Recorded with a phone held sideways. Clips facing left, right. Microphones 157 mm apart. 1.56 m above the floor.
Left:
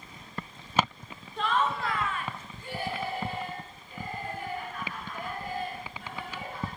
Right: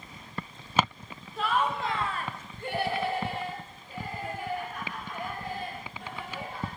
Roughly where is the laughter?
Centre.